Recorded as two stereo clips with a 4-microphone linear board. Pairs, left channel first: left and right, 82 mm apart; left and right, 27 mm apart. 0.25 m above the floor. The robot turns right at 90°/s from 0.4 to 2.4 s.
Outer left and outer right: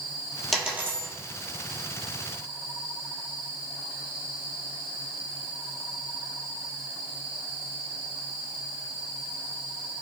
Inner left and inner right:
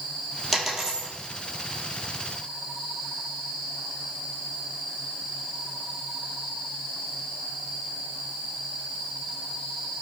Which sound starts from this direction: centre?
A dropped coin, at 0.5 s.